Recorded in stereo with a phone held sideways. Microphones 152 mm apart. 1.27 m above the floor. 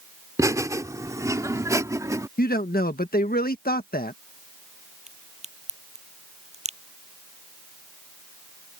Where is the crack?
45° right (ahead or behind).